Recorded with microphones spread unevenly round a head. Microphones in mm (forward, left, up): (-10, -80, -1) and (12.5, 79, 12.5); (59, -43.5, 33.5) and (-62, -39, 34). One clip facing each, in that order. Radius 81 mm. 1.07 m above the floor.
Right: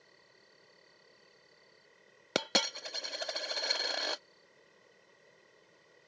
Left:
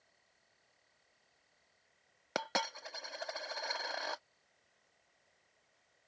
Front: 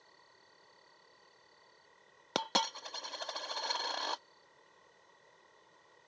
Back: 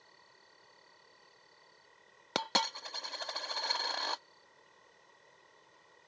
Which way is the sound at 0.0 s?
95° right.